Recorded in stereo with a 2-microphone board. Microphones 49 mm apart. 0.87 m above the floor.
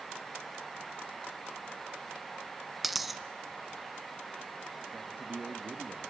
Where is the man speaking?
30° right (ahead or behind), 1.6 m.